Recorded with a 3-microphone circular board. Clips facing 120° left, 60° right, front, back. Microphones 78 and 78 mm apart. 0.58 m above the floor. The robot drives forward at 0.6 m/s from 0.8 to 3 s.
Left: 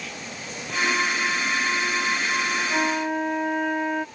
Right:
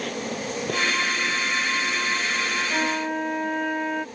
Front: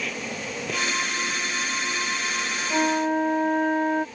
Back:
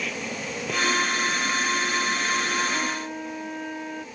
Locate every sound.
0.0 s an insect: 90° right; by 4.2 s 95° right
2.7 s a flute: 35° left